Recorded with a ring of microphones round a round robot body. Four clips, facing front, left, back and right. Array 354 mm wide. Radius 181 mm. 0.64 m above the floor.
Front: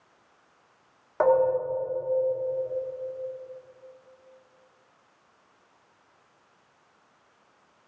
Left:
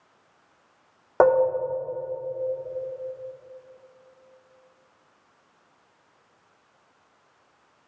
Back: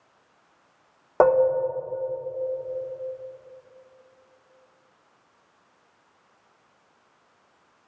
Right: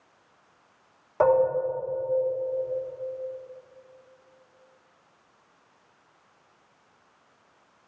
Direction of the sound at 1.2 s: 140° left.